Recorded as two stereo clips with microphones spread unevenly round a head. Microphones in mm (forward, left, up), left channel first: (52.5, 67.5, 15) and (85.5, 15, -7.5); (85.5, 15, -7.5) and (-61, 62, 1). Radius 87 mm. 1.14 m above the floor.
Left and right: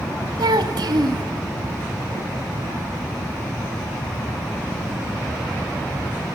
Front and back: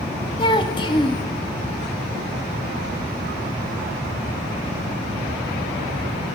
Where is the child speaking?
85° right, 1.8 m.